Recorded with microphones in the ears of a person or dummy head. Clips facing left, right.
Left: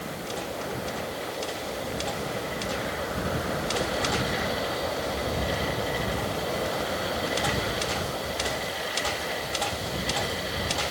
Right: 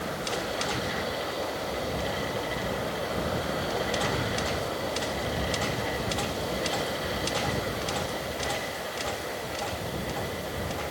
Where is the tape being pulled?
No tape being pulled in this recording.